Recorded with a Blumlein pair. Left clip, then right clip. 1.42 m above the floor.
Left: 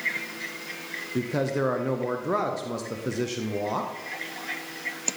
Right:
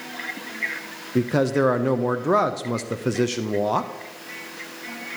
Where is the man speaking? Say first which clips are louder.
Right 7 dB; 20° right, 0.6 m.